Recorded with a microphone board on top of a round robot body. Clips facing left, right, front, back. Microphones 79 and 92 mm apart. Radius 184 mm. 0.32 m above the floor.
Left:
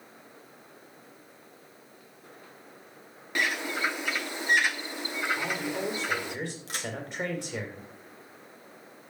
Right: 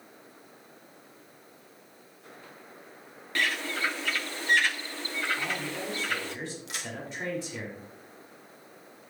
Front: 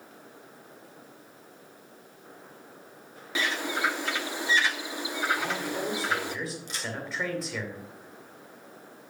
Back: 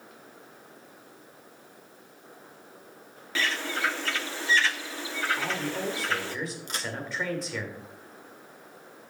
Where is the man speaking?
90° left, 3 m.